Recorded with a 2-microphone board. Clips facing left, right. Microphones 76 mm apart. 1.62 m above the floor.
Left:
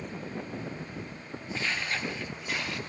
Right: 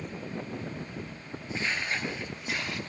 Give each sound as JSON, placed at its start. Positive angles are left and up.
{"t": 1.5, "sound": "footsteps", "side_deg": -15, "distance_m": 1.7}